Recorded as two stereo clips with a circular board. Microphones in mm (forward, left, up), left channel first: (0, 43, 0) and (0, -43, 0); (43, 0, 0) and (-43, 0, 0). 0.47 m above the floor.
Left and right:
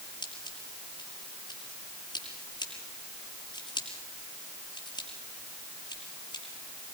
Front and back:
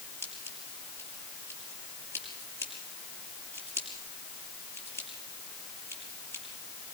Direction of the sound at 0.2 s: 65° left.